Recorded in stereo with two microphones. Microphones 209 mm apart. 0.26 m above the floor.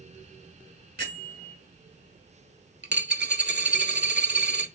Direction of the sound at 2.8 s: 60° right (ahead or behind).